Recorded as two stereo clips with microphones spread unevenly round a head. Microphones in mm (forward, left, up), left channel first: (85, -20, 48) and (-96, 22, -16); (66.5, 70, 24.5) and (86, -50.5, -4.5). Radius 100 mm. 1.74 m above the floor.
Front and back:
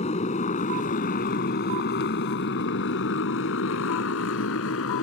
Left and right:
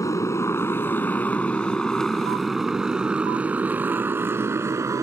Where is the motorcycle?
40° left; by 5.0 s 15° right.